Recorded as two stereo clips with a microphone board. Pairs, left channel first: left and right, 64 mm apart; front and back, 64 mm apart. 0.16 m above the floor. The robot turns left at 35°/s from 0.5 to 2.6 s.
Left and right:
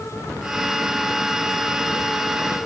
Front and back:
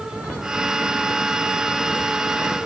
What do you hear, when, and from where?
Only background noise.